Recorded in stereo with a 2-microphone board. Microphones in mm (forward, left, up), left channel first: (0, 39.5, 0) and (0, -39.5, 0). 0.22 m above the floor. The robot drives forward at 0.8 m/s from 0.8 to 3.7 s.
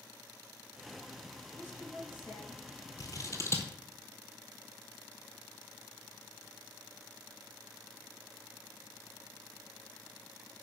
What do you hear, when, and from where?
1.6 s a woman speaking: 30° left (ahead or behind), 4 m; by 2.6 s 35° left (ahead or behind), 3 m
3.0 s scissors: 55° left (ahead or behind), 1.0 m; by 3.7 s 35° left (ahead or behind), 1.4 m